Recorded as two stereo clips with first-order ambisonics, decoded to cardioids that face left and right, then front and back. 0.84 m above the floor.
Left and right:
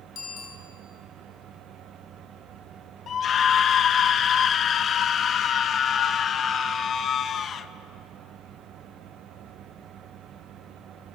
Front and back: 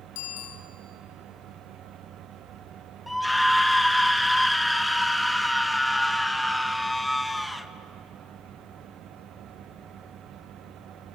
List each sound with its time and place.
0.1 s a bicycle bell: 20° left, 5 m
3.1 s a scream: 80° left, 0.8 m